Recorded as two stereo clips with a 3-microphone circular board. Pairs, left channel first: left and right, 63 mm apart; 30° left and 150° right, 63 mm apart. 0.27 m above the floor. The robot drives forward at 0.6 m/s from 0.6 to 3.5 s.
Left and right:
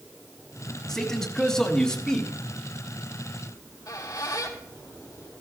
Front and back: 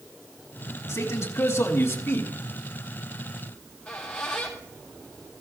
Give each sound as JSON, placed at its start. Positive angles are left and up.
{"t": 0.9, "sound": "a man speaking", "azimuth_deg": 10, "distance_m": 2.0}
{"t": 3.5, "sound": "a squeak", "azimuth_deg": 110, "distance_m": 3.0}